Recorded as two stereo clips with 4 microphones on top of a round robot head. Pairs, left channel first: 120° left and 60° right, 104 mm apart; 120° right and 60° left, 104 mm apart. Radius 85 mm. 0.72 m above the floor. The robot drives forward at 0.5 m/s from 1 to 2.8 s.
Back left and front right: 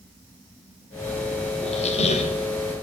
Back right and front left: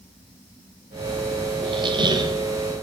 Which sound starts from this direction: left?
A squeak, at 1.6 s.